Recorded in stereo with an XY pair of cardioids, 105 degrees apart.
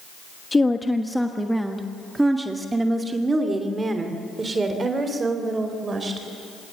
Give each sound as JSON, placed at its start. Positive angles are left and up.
{"t": 0.5, "sound": "a woman speaking", "azimuth_deg": 20, "distance_m": 1.2}